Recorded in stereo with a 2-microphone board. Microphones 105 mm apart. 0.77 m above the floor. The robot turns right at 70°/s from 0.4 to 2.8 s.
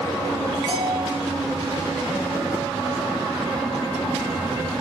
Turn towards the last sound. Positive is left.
turn(degrees=90)